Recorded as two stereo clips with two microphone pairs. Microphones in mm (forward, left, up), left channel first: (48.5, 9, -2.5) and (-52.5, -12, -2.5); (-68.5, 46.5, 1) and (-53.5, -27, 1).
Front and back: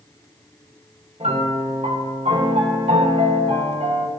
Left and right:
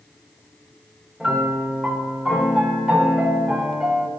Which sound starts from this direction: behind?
A piano, at 1.2 s.